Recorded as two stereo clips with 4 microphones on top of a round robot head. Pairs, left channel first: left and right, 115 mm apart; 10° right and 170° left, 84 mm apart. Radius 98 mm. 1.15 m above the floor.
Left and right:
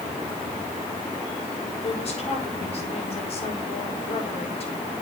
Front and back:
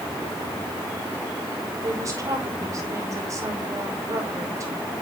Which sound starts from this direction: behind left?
A woman speaking, at 1.8 s.